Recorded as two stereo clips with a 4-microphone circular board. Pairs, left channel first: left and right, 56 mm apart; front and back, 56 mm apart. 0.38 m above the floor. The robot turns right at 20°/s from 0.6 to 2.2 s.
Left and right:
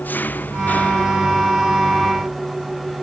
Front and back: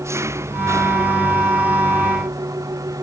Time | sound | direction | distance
0.0 | an engine running | 150° left | ?